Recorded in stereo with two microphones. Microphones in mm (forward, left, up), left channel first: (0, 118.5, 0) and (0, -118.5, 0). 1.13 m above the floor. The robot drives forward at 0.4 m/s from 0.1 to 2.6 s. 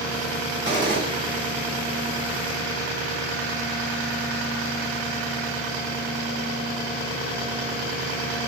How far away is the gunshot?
About 1.2 m.